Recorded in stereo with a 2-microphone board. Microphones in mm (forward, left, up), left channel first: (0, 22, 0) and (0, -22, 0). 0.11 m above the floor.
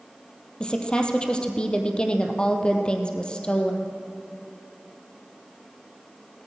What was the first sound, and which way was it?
A woman speaking, 25° left (ahead or behind).